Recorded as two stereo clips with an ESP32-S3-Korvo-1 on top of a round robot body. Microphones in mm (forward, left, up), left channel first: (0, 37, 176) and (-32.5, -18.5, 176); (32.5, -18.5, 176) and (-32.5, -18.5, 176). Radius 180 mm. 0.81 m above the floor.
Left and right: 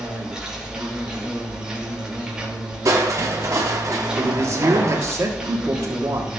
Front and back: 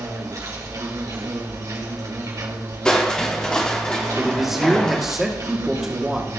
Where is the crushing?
75° right, 0.6 m.